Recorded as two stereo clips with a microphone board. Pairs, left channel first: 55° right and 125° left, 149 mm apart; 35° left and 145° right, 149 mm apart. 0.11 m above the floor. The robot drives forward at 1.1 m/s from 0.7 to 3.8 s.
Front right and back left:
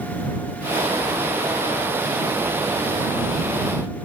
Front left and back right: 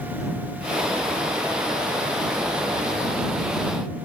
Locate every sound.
Only background noise.